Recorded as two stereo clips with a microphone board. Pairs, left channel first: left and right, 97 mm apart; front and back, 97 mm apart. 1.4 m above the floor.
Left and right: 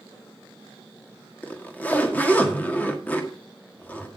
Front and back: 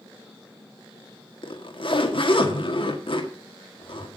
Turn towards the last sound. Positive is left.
turn(degrees=15)